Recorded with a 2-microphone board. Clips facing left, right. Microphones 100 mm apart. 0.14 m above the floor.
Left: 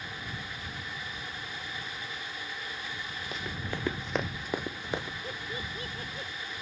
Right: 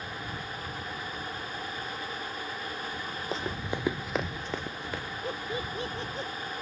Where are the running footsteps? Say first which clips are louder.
Right 4 dB; 35° right (ahead or behind); by 5.1 s 25° left (ahead or behind).